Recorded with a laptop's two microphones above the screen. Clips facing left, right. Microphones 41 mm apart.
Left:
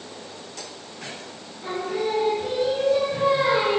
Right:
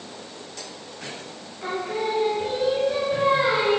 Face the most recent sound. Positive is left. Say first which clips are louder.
# even
turn(degrees=-40)  # may be behind; listen again after turning